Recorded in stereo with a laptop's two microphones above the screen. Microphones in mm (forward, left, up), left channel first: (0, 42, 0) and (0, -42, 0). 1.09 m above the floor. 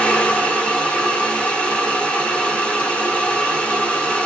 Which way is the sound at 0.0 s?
15° left (ahead or behind).